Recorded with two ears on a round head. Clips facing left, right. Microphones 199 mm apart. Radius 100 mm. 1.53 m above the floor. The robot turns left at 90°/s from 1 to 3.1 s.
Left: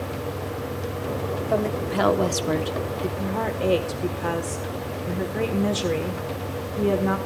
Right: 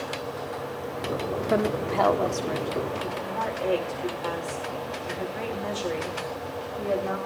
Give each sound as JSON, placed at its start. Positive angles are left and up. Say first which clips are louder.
{"t": 1.5, "sound": "a woman speaking", "louder": "even", "azimuth_deg": -155, "distance_m": 1.3}
{"t": 3.2, "sound": "a woman speaking", "louder": "left 4 dB", "side_deg": 55, "distance_m": 1.6}